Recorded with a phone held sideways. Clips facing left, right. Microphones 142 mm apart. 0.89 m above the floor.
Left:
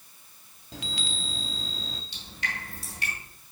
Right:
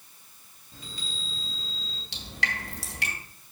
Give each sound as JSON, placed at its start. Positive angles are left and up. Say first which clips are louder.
{"t": 0.7, "sound": "a chime", "louder": "left 6 dB", "side_deg": 80, "distance_m": 0.7}
{"t": 2.1, "sound": "dripping", "louder": "right 6 dB", "side_deg": -80, "distance_m": 1.9}